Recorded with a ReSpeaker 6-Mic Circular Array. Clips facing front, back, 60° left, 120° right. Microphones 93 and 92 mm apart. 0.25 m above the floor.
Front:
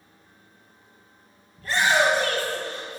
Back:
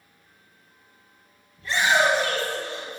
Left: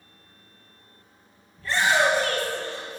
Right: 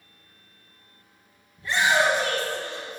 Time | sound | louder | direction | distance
1.6 | a shout | even, even | 45° right | 4 m